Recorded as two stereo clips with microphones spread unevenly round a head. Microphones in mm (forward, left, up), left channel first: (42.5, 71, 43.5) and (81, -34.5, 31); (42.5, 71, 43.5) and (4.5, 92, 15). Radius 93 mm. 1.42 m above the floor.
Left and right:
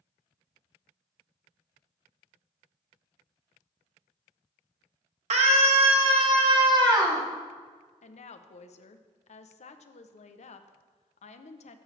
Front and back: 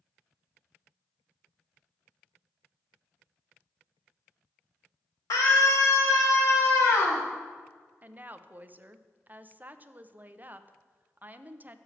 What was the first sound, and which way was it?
A scream, 60° right.